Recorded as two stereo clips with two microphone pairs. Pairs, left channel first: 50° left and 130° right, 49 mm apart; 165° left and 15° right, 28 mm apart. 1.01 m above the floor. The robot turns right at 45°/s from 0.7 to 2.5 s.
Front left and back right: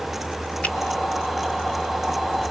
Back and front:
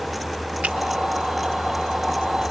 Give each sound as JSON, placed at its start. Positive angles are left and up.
{"t": 0.6, "sound": "a finger snap", "azimuth_deg": -10, "distance_m": 2.5}